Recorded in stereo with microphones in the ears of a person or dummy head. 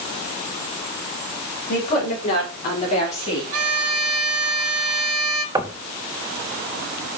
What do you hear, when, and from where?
1.7 s a woman speaking: 40° left (ahead or behind), 4.5 m; by 3.4 s 30° left (ahead or behind), 4 m
3.5 s a violin: 75° right (ahead or behind), 1.8 m
5.5 s knocking: 15° right (ahead or behind), 0.6 m